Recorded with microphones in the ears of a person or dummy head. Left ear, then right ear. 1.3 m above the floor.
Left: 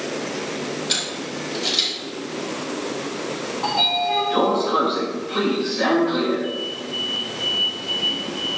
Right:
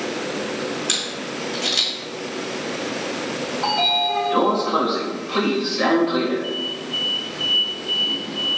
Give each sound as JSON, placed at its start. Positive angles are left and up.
{"t": 0.9, "sound": "a camera shutter", "side_deg": -70, "distance_m": 2.5}
{"t": 3.6, "sound": "a sliding door", "side_deg": -10, "distance_m": 1.4}